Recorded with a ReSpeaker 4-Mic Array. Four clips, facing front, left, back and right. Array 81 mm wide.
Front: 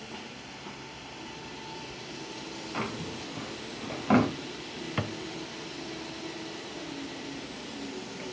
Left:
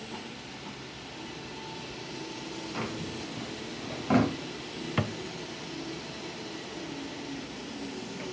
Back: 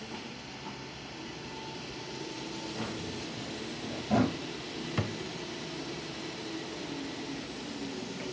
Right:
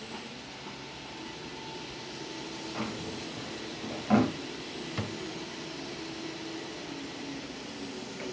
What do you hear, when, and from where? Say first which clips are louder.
2.7 s a drawer: even, front 6 dB; 5° left, 2.5 m
5.0 s a thud: left 7 dB, front 2 dB; 60° left, 0.9 m